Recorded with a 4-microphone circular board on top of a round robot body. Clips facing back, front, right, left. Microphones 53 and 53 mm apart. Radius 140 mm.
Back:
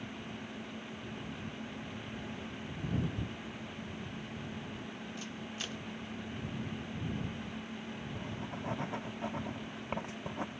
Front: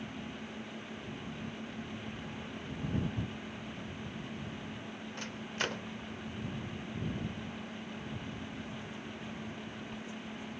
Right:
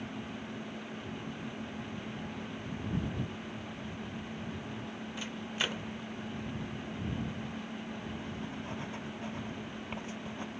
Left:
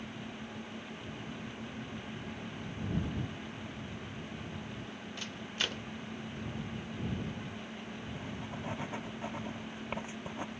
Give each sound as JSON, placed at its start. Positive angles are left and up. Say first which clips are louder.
{"t": 5.2, "sound": "a microwave", "louder": "front 9 dB, right 2 dB", "azimuth_deg": -15}
{"t": 8.2, "sound": "writing", "louder": "back 1 dB, right 1 dB", "azimuth_deg": 160}